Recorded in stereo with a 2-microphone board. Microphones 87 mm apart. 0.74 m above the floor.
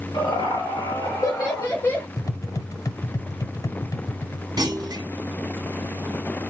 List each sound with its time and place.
0.1 s laughter: 60° left (ahead or behind), 3 m; by 2.1 s 25° left (ahead or behind), 1.4 m
2.2 s tapping: 40° left (ahead or behind), 0.6 m
4.6 s a clunk: 50° right (ahead or behind), 0.7 m